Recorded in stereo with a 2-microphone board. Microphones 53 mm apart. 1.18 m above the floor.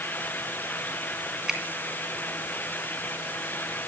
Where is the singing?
No singing in this recording.